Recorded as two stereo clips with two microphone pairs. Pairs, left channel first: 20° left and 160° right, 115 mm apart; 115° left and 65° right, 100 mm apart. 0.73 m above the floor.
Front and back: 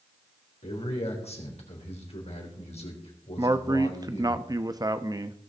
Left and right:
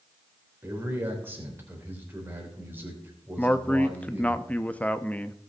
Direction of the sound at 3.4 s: 175° left.